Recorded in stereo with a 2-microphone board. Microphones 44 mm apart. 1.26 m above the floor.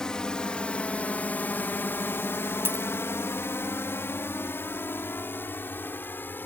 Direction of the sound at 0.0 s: 15° left (ahead or behind).